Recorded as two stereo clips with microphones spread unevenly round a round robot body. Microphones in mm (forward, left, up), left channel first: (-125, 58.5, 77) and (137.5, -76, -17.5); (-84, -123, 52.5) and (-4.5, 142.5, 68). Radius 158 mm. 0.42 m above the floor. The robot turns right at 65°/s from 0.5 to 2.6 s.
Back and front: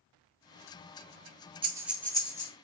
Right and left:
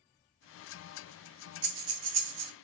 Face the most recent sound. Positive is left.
turn(degrees=90)